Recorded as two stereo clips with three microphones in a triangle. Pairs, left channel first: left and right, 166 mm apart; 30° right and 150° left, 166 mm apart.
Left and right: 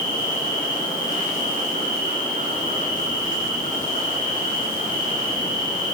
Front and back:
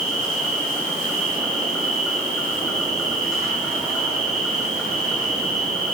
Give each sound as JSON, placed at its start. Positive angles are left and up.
{"t": 0.0, "sound": "an insect", "azimuth_deg": 55, "distance_m": 9.5}